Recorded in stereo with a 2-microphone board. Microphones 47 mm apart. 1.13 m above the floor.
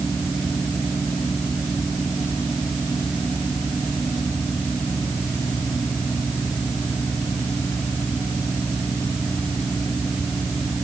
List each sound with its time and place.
Only background noise.